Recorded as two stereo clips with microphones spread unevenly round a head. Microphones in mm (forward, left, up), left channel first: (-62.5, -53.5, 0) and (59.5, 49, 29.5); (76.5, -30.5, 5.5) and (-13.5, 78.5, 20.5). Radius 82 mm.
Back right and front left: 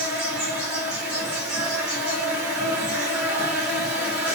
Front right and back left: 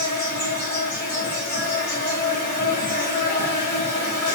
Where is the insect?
50° right, 2 m.